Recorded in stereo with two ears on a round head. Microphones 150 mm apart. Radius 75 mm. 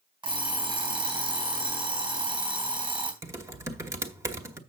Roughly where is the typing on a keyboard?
Centre.